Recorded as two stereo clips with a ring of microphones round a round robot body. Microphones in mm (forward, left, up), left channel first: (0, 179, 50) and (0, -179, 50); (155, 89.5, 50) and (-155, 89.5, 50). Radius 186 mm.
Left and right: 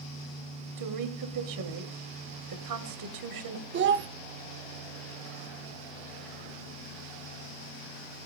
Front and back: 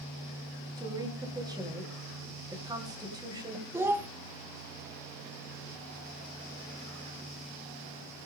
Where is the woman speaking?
105° right, 2 m.